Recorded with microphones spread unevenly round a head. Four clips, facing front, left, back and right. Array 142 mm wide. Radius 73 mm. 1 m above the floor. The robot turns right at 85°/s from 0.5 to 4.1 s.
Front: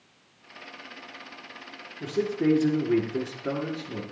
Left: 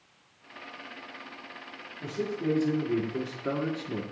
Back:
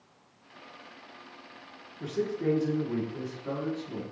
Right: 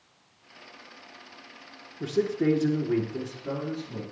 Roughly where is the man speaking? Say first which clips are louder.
Right 6 dB, front 4 dB; right.